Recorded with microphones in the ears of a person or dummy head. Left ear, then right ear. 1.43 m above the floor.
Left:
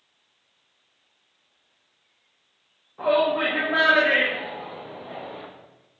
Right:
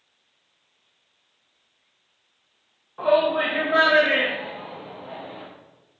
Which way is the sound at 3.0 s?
35° right (ahead or behind).